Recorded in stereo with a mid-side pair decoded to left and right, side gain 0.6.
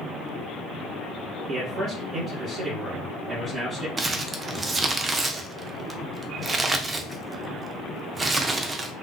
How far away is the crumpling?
About 0.6 m.